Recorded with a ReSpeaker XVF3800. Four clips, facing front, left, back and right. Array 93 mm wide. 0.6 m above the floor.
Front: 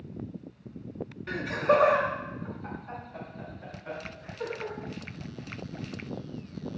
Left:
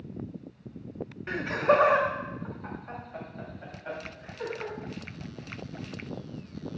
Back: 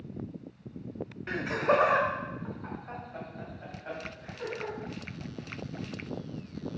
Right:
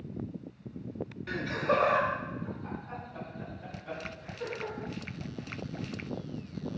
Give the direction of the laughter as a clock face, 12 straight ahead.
8 o'clock.